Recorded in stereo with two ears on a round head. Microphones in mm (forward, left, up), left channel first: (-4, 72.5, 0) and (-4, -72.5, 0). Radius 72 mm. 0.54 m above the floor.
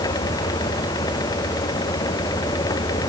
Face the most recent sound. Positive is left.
No sound to turn to.